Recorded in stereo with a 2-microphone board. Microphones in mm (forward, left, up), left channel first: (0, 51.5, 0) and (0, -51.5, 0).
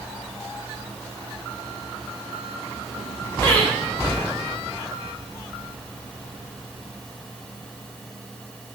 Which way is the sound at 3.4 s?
30° left (ahead or behind).